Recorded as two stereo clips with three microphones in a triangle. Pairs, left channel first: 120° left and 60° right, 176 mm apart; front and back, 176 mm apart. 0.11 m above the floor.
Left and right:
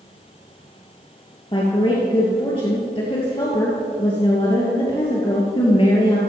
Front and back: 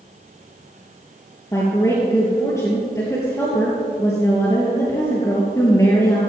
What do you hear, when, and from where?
1.5 s a woman speaking: 70° left, 2.5 m